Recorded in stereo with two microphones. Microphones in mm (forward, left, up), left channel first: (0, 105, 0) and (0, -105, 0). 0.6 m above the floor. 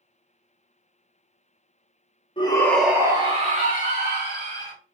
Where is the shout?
25° left (ahead or behind), 0.7 m; by 4.7 s 60° right (ahead or behind), 1.5 m.